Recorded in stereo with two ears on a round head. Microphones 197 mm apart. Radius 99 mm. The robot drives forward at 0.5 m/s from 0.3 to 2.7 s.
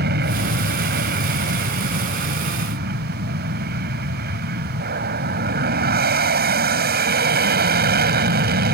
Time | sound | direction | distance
0.0 | an aircraft | 45° right (ahead or behind) | ?